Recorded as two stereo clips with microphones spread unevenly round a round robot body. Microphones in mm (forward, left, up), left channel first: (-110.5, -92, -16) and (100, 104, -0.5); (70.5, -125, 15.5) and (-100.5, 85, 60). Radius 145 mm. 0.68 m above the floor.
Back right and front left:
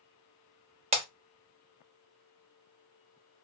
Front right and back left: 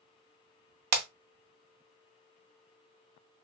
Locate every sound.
0.9 s breaking glass: 110° left, 0.6 m